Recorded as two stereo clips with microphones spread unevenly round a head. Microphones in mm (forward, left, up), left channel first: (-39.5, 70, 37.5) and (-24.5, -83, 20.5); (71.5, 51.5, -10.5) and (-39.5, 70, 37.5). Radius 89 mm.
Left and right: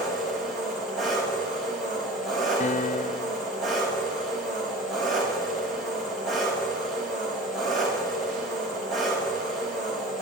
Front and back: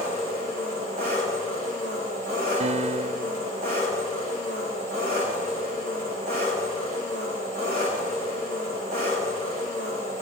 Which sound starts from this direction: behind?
An engine running, at 0.0 s.